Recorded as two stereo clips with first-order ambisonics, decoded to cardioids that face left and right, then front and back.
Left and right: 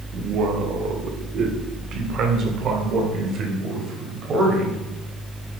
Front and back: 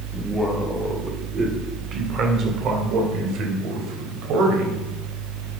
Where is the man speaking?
90° right, 1.5 m; by 4.8 s 150° right, 3.5 m.